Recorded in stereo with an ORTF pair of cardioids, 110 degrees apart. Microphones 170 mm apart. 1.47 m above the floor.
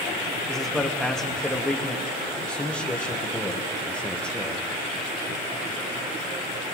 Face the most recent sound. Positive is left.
turn(degrees=5)